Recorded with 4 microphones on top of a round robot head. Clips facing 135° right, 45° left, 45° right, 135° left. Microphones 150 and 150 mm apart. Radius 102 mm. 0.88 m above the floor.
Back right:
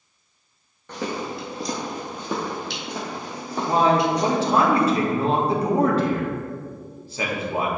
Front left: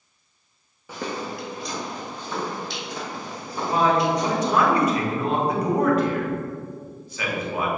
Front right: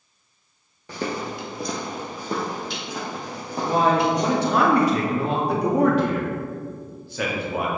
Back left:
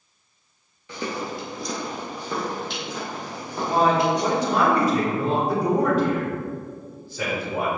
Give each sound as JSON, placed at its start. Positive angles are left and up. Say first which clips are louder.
{"t": 0.9, "sound": "footsteps", "louder": "back right 2 dB, front right 1 dB", "azimuth_deg": -30, "distance_m": 0.9}
{"t": 3.6, "sound": "a man speaking", "louder": "back right 1 dB, even", "azimuth_deg": -75, "distance_m": 1.7}